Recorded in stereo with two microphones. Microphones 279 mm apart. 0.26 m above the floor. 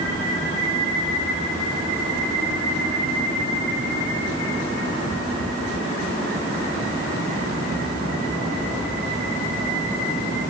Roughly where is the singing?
I don't hear singing.